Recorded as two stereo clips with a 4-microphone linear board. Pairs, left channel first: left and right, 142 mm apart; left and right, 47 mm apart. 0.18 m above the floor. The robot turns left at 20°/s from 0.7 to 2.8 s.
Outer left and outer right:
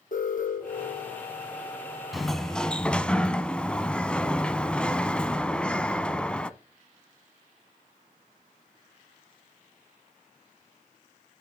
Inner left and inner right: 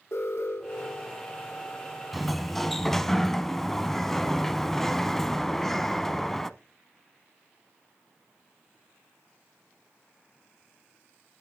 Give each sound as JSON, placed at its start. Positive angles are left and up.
{"t": 0.1, "sound": "an alarm", "side_deg": 65, "distance_m": 5.0}
{"t": 2.1, "sound": "a sliding door", "side_deg": 0, "distance_m": 0.7}